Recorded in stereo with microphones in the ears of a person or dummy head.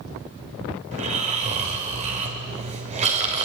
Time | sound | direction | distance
0.9 | snoring | 35° right (ahead or behind) | 3 m